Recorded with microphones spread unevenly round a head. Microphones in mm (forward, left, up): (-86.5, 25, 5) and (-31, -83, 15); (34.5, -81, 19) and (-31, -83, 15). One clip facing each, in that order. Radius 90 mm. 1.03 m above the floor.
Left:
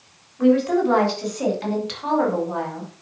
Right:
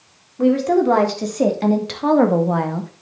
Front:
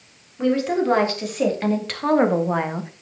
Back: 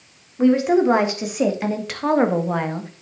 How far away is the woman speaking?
About 3.5 m.